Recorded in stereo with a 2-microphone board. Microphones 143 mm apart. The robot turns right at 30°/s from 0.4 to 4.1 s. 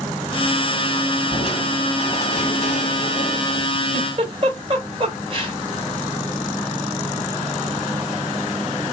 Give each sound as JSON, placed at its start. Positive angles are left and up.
{"t": 1.3, "sound": "crushing", "azimuth_deg": 45, "distance_m": 1.2}
{"t": 3.9, "sound": "a giggle", "side_deg": -45, "distance_m": 2.0}